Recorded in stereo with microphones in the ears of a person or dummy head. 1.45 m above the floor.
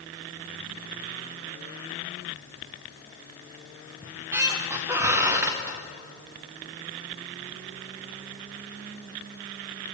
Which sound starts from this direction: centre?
A squeak, at 4.0 s.